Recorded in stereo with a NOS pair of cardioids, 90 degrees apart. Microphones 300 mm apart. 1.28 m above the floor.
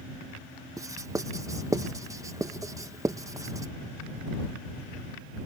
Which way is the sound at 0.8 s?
10° right.